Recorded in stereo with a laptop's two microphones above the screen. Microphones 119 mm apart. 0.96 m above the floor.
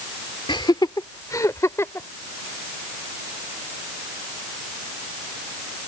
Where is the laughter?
45° left (ahead or behind); by 2.1 s 20° left (ahead or behind).